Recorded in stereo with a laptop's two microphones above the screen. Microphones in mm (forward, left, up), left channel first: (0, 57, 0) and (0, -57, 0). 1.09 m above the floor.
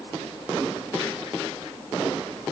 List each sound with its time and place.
Only background noise.